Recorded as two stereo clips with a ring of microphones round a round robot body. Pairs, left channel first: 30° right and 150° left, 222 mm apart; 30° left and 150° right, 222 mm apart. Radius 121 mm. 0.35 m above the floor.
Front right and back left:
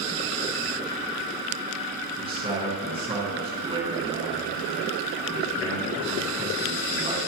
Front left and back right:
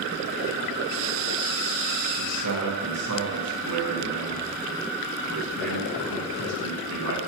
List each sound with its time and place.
2.2 s a man speaking: 145° right, 5 m